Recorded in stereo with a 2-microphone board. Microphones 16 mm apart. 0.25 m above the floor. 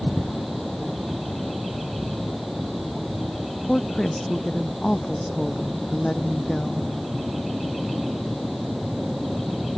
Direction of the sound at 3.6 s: 65° left (ahead or behind).